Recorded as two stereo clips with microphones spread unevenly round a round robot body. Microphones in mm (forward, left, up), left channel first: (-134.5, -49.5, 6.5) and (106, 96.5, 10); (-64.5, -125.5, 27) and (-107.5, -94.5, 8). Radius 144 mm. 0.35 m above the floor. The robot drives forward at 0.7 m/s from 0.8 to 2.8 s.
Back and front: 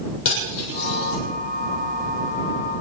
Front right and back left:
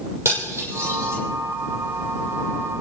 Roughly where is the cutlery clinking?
Behind.